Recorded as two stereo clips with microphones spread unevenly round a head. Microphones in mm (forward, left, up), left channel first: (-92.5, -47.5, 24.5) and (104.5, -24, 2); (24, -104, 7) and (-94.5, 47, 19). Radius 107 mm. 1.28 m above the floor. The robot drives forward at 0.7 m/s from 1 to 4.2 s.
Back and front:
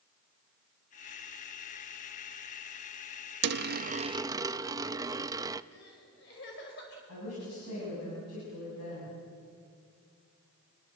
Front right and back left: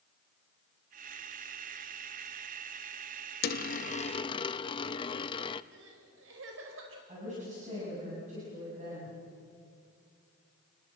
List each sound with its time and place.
3.4 s a dropped coin: 10° right, 0.8 m; by 5.6 s 50° right, 0.5 m
5.7 s crying: 145° left, 5 m
7.1 s a woman speaking: straight behind, 9 m